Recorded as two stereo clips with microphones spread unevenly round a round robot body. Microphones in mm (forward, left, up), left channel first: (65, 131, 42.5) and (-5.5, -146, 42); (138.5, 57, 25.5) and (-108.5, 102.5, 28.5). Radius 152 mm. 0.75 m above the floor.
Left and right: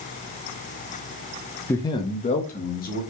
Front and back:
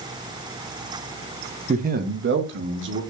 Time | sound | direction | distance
1.7 | a man speaking | 150° left | 0.6 m